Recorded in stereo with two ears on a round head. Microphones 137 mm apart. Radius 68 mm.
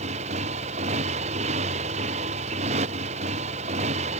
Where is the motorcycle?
45° right (ahead or behind).